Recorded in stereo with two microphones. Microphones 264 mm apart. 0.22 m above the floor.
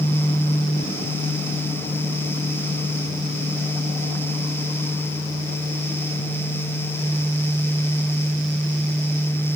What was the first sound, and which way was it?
Only background noise.